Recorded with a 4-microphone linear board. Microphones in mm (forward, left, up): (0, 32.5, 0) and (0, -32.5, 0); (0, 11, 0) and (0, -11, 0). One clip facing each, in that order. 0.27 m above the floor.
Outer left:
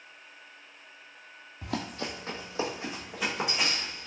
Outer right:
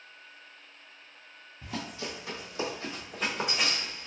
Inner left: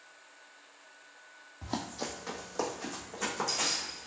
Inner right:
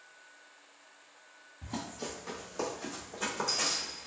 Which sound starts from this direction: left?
Running footsteps, at 1.6 s.